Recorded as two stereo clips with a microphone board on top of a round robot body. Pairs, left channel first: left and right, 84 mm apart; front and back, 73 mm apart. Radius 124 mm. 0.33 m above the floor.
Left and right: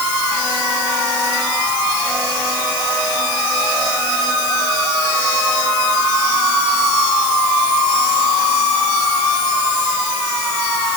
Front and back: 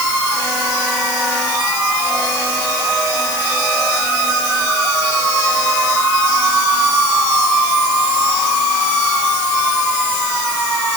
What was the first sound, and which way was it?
Only background noise.